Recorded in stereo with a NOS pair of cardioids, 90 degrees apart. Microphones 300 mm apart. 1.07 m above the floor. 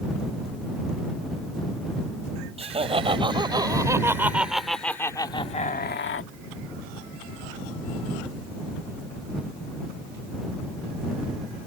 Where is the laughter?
20° right; by 6.3 s 50° left.